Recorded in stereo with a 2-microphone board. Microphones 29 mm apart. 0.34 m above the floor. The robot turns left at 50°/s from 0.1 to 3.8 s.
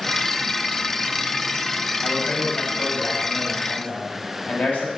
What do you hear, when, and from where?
2.0 s a man speaking: 150° left, 1.6 m; by 4.9 s 60° left, 1.6 m